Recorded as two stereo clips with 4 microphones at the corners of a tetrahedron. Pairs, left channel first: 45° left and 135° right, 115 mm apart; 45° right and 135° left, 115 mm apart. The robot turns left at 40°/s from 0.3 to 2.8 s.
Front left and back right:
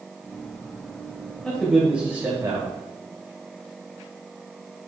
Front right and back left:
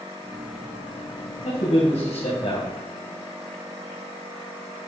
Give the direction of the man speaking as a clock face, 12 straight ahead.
1 o'clock.